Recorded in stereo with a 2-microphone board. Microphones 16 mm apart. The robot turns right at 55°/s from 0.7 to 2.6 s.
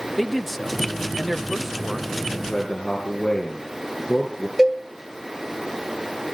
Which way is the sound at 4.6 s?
20° right (ahead or behind).